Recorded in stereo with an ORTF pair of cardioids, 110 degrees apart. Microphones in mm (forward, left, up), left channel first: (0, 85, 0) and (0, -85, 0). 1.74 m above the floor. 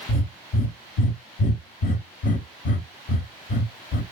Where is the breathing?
55° left, 1.0 m.